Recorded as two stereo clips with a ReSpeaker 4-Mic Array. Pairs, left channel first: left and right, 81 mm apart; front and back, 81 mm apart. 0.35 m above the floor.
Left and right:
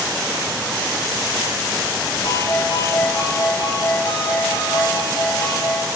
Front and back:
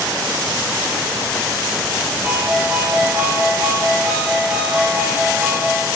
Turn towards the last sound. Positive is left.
turn(degrees=110)